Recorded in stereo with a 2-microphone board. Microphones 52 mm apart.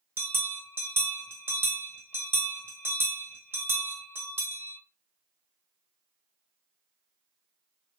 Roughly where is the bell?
Right.